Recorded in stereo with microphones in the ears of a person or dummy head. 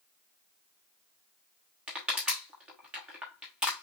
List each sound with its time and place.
1.9 s crushing: 5° right (ahead or behind), 1.0 m